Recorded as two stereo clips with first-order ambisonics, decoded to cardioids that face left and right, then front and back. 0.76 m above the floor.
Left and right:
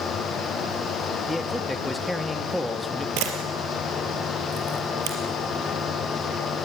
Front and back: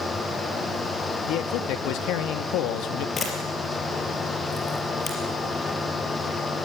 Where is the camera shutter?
65° right, 4 m.